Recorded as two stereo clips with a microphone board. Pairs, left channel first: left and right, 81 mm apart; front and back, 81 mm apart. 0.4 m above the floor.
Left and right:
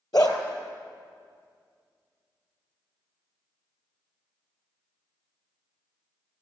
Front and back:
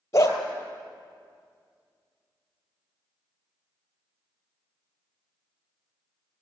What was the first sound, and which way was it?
A dog barking, 55° left.